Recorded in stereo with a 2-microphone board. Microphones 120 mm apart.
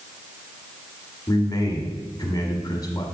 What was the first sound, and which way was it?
A man speaking, 30° left (ahead or behind).